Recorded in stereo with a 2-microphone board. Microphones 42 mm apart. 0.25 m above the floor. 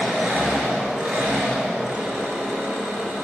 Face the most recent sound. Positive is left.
turn(degrees=-15)  # may be behind; listen again after turning